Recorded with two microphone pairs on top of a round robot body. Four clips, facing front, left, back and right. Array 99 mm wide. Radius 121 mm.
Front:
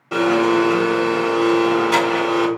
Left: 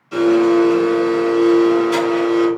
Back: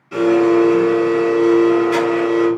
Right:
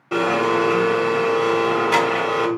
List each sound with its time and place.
0.1 s a blender: 45° right, 1.6 m